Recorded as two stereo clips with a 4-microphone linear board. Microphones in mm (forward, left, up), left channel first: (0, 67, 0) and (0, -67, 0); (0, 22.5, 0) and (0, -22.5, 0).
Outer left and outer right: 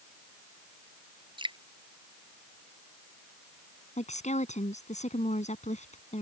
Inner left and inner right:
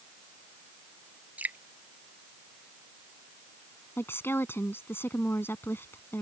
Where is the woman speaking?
55° left (ahead or behind).